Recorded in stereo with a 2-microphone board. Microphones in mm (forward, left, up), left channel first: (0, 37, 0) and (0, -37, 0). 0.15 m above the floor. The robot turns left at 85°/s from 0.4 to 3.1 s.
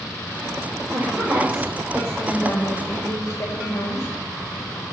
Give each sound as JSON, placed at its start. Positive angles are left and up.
{"t": 0.9, "sound": "a woman speaking", "azimuth_deg": -120, "distance_m": 3.0}